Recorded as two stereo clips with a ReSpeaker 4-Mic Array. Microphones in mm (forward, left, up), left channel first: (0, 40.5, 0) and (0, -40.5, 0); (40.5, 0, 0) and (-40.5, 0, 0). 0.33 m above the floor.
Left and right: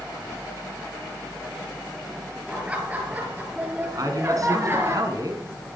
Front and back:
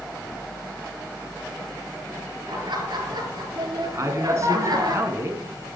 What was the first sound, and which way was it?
Laughter, 165° right.